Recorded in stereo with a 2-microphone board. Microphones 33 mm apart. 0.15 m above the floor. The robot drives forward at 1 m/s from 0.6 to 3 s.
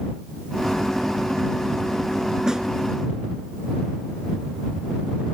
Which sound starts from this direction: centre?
A snare drum, at 2.5 s.